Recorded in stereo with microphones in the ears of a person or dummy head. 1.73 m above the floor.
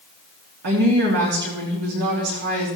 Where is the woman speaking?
60° right (ahead or behind), 3 m.